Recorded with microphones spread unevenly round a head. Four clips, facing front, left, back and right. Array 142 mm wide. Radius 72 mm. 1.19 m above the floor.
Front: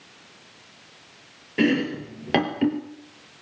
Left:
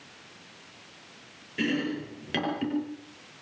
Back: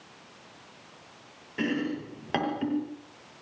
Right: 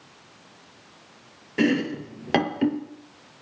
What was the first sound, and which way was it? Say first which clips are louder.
Chopping: right 6 dB, front 7 dB; 45° right.